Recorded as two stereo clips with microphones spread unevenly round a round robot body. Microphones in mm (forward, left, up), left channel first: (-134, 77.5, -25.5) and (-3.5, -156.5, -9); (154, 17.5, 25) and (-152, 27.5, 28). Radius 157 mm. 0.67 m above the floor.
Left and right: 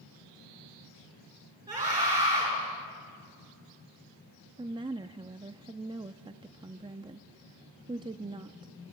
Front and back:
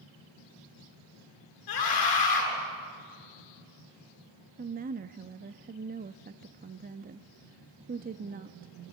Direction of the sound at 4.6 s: 130° right.